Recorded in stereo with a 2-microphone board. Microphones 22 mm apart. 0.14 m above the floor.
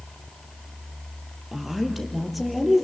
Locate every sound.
1.5 s a woman speaking: 10° right (ahead or behind), 3.5 m; by 2.9 s centre (ahead or behind), 4 m